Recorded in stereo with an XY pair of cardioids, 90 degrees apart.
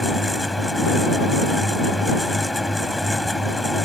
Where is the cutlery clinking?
No cutlery clinking in this recording.